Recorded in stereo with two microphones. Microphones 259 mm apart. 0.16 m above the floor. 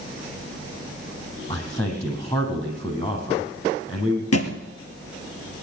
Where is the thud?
70° left (ahead or behind), 1.4 m.